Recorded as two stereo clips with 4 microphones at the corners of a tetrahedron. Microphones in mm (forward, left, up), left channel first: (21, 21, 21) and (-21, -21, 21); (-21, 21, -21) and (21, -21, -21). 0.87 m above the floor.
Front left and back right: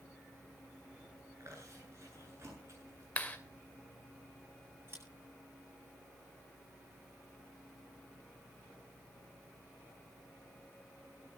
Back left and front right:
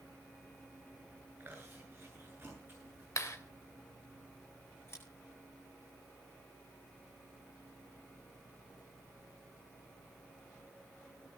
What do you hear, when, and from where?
1.4 s chewing: 95° right, 8.5 m
3.2 s a clap: 110° left, 2.5 m
4.9 s scissors: straight behind, 8.5 m